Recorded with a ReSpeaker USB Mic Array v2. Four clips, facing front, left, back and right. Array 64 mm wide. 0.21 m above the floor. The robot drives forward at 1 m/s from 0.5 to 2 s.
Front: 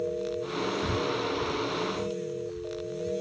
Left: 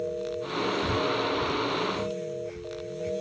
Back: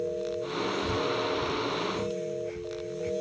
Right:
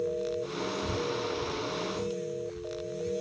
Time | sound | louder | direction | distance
0.8 | breathing | left 5 dB, even | 55° left | ?